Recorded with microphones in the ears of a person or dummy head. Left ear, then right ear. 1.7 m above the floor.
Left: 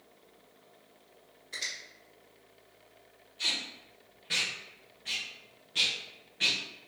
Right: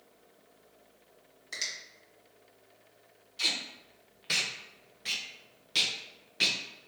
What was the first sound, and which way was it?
A finger snap, 75° right (ahead or behind).